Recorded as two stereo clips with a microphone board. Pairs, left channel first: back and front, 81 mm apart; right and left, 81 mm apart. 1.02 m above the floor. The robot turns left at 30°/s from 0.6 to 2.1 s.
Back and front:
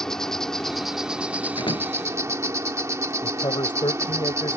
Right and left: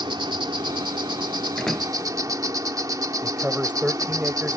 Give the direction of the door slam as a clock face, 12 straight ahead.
6 o'clock.